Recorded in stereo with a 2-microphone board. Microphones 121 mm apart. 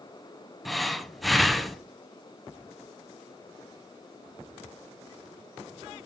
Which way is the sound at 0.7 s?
Centre (ahead or behind).